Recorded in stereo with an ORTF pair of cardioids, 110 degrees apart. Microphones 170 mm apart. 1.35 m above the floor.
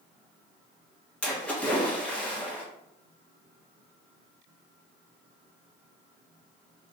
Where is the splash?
10° left, 1.0 m.